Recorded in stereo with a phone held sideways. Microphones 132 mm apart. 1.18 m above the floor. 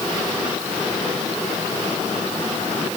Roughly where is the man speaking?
I don't hear a man speaking.